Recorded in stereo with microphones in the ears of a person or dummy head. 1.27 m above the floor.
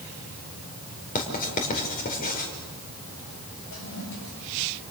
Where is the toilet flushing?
70° left (ahead or behind), 7.5 m.